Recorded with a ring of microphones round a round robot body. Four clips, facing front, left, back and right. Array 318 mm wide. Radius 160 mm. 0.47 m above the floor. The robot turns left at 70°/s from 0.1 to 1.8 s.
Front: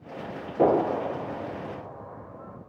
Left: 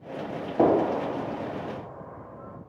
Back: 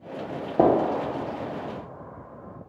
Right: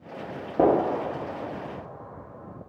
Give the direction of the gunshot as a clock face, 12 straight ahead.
5 o'clock.